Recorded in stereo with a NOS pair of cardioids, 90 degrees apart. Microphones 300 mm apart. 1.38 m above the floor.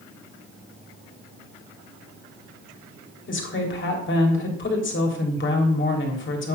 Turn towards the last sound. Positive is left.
turn(degrees=45)